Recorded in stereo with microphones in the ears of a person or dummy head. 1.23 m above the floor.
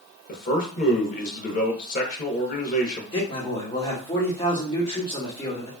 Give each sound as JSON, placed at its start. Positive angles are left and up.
{"t": 0.3, "sound": "a man speaking", "side_deg": 45, "distance_m": 1.0}
{"t": 3.1, "sound": "a man speaking", "side_deg": 30, "distance_m": 1.1}